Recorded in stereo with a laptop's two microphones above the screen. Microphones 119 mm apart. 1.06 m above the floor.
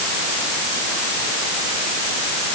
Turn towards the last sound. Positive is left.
No sound to turn to.